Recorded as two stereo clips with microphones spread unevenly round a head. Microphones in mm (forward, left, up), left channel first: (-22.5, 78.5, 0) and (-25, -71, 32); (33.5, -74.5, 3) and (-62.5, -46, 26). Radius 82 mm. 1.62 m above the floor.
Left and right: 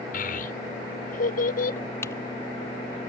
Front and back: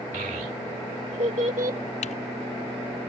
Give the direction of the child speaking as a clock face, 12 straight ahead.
8 o'clock.